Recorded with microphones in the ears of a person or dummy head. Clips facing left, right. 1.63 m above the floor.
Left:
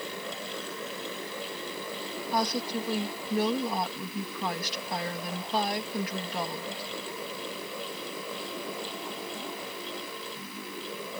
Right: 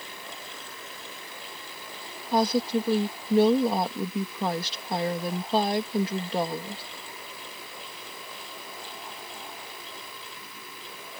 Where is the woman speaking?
25° right (ahead or behind).